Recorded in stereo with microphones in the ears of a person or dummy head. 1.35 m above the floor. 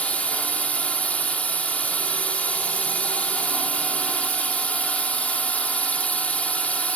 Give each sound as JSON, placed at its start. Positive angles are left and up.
{"t": 0.0, "sound": "a drone", "side_deg": 5}